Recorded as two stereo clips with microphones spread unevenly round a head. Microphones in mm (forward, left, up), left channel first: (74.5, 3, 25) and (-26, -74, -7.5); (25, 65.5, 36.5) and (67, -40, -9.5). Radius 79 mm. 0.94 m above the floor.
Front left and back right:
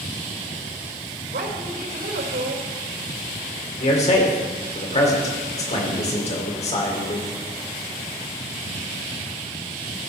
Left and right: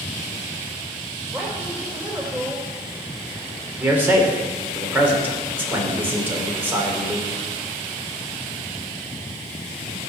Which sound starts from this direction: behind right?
A woman speaking, at 1.3 s.